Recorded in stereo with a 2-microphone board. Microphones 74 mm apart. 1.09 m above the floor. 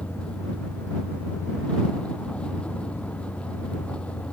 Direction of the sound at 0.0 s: 15° left (ahead or behind).